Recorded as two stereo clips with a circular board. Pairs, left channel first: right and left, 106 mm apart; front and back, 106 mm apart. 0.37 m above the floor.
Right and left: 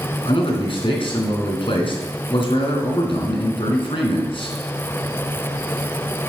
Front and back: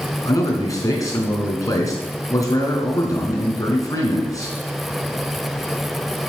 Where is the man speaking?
55° right, 3.5 m.